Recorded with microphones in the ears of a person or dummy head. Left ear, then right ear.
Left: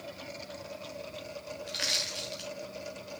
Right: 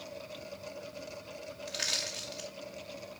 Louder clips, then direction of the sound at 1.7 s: Left 3 dB; centre (ahead or behind).